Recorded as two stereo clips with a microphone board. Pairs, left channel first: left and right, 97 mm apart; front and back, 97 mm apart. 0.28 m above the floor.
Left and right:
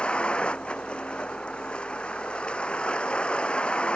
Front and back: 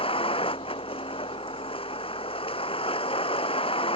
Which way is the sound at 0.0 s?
10° left.